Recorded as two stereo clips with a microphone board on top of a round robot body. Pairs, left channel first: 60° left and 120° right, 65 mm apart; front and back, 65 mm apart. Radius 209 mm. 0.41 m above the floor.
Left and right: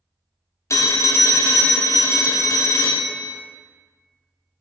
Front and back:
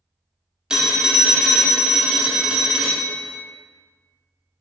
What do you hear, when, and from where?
0.7 s a phone ringing: 105° left, 0.6 m